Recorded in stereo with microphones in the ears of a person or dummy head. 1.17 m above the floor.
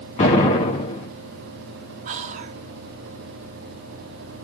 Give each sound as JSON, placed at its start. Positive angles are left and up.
{"t": 0.2, "sound": "an explosion", "side_deg": 40, "distance_m": 2.0}
{"t": 2.0, "sound": "whispering", "side_deg": -35, "distance_m": 0.6}